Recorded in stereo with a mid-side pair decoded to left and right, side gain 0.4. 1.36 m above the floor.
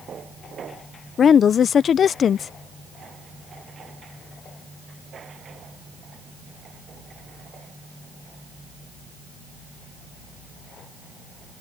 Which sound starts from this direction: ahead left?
A woman speaking, at 1.2 s.